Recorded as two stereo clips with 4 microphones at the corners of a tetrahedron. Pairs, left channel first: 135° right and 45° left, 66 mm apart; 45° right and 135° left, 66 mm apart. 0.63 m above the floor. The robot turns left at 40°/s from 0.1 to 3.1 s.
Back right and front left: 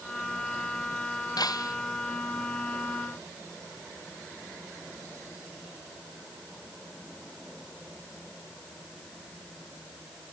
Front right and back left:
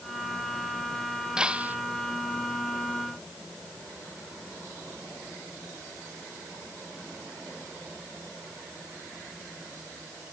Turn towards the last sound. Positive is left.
turn(degrees=145)